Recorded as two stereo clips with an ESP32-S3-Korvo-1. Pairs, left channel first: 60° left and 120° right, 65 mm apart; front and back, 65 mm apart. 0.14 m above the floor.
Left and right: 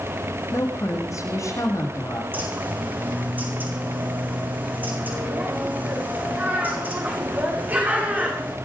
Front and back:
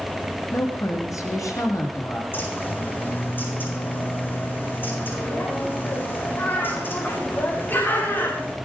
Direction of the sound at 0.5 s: 30° left.